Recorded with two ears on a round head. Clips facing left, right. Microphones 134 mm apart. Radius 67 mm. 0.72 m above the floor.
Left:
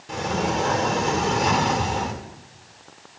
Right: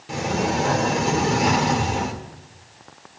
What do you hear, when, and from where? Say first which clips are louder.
0.1 s a sliding door: right 1 dB; 5° right (ahead or behind), 2.0 m